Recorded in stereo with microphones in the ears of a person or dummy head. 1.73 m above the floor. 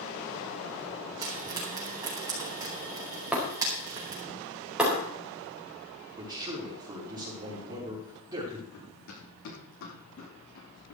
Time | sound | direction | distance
1.2 | frying | 20° right (ahead or behind) | 4.5 m
3.3 | breaking glass | 5° right (ahead or behind) | 4.5 m
6.2 | a man speaking | 20° right (ahead or behind) | 5.5 m
8.7 | running footsteps | 75° left (ahead or behind) | 8 m